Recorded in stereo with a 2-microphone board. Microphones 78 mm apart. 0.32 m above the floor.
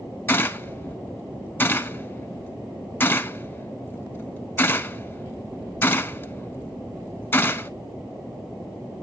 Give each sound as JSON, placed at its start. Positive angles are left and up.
{"t": 0.3, "sound": "a gunshot", "side_deg": 25, "distance_m": 0.5}